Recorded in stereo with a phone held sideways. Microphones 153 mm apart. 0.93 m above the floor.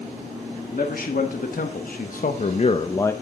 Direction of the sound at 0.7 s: 70° left (ahead or behind).